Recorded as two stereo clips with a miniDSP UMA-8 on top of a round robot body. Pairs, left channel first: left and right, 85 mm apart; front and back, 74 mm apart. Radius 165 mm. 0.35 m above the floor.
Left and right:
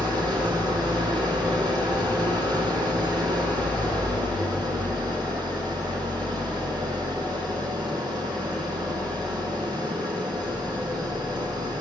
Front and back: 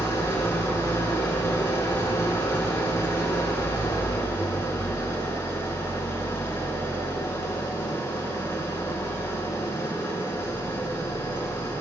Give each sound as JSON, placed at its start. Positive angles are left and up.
{"t": 0.0, "sound": "an engine running", "azimuth_deg": -55, "distance_m": 5.5}